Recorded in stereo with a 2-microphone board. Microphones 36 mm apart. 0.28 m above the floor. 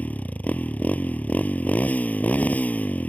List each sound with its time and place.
0.0 s a motorcycle: 40° left (ahead or behind)